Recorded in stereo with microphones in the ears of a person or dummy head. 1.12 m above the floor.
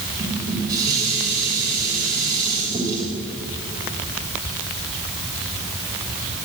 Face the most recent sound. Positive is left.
turn(degrees=-20)  # may be behind; listen again after turning